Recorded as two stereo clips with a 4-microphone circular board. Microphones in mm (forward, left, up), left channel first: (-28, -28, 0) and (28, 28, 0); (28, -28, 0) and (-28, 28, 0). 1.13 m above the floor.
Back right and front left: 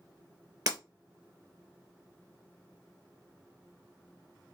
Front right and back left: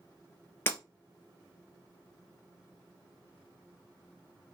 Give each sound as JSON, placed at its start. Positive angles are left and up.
{"t": 0.7, "sound": "breaking glass", "azimuth_deg": 15, "distance_m": 2.5}